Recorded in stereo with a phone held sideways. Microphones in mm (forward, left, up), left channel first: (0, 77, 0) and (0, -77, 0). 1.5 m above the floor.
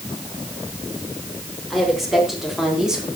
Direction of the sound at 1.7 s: Centre (ahead or behind).